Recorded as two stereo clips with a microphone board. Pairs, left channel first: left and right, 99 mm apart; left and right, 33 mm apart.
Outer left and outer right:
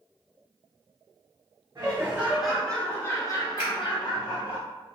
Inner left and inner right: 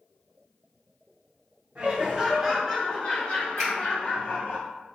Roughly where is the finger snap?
Centre.